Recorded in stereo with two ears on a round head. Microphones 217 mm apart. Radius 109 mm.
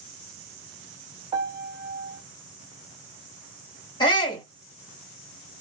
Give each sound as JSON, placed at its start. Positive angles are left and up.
{"t": 1.3, "sound": "a piano", "side_deg": -20, "distance_m": 0.8}
{"t": 4.0, "sound": "a shout", "side_deg": 20, "distance_m": 1.5}